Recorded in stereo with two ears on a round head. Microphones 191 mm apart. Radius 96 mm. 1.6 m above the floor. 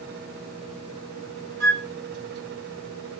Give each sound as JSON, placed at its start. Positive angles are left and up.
{"t": 1.6, "sound": "a flute", "side_deg": -40, "distance_m": 2.0}